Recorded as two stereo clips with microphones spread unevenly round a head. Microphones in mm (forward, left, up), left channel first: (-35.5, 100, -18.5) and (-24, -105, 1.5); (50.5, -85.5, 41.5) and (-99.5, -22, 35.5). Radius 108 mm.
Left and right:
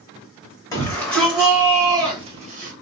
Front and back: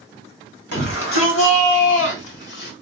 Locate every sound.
0.7 s a shout: 15° left, 1.5 m; by 2.7 s 35° right, 1.4 m